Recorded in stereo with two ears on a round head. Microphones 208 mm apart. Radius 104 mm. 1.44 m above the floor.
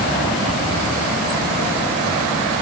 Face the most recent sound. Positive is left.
No sound to turn to.